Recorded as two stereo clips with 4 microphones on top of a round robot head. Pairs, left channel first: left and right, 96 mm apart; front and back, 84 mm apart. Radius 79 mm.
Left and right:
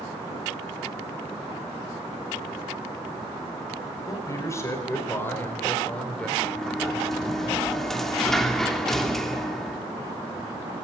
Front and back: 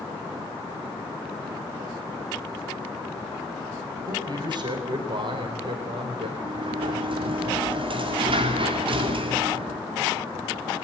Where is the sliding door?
175° left, 3.5 m.